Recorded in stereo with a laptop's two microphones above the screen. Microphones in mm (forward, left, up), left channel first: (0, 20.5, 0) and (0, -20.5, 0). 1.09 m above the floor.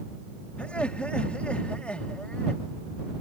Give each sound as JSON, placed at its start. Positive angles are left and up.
{"t": 0.6, "sound": "laughter", "side_deg": 30}